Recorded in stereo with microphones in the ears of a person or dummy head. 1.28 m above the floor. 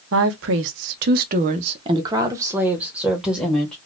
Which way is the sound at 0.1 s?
80° right.